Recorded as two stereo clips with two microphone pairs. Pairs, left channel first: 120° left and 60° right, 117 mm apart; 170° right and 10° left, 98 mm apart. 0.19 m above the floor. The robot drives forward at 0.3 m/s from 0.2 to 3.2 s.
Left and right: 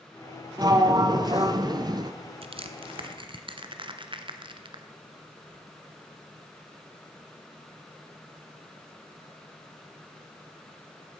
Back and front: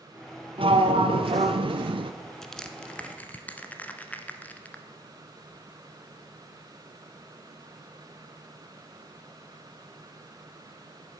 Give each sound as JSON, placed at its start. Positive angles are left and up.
{"t": 0.6, "sound": "a sliding door", "azimuth_deg": -5, "distance_m": 1.2}
{"t": 2.4, "sound": "crushing", "azimuth_deg": -85, "distance_m": 1.2}